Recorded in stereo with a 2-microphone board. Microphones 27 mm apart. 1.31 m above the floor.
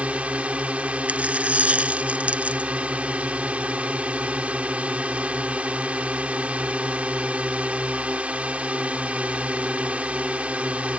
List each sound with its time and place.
0.0 s a drone: 50° right (ahead or behind)
1.1 s a dropped coin: 55° right (ahead or behind)